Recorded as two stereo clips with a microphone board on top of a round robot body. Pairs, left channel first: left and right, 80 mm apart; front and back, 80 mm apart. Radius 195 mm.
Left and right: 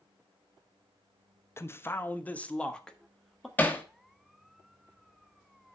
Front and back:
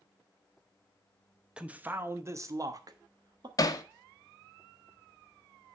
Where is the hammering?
25° left, 1.3 m.